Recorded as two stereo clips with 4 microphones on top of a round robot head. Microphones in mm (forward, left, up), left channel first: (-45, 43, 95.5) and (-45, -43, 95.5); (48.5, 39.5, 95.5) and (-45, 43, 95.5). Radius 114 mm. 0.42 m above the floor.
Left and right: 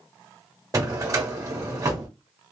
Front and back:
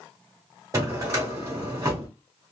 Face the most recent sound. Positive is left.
turn(degrees=-135)